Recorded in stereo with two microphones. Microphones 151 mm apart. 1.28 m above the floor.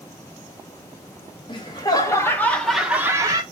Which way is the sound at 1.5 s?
35° left (ahead or behind).